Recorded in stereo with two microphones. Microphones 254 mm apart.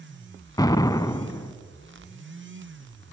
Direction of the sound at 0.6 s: 15° left (ahead or behind).